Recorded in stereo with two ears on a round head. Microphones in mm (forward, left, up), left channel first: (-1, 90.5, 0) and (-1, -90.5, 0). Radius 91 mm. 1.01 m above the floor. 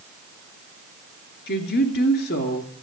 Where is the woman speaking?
50° left (ahead or behind), 2.5 m.